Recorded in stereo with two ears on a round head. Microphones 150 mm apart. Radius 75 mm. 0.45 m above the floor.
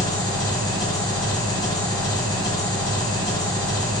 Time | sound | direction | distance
0.0 | an engine running | 25° left (ahead or behind) | 1.9 m